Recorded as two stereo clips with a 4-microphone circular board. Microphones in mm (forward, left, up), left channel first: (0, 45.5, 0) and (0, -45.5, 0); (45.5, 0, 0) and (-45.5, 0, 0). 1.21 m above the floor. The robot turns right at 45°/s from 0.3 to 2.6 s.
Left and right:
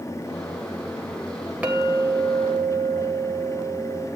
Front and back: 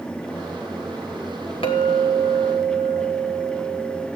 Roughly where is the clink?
Ahead.